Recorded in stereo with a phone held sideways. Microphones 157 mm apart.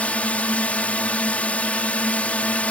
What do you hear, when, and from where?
0.0 s a drone: 10° left (ahead or behind)